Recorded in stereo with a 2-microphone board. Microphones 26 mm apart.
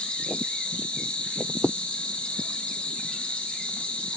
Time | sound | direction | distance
0.0 | an insect | 55° left (ahead or behind) | 1.4 m